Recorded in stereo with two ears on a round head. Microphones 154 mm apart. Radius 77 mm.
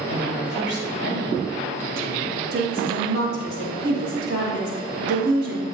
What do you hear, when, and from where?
0.1 s a woman speaking: 70° right (ahead or behind), 3.5 m; by 2.5 s 30° right (ahead or behind), 0.9 m
2.5 s a woman speaking: 70° right (ahead or behind), 3.5 m